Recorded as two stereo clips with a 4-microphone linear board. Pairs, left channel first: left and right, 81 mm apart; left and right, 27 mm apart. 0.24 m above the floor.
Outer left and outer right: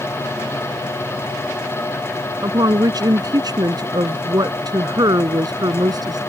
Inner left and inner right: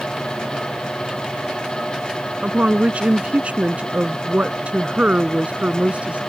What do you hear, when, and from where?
2.4 s a woman speaking: 55° right (ahead or behind)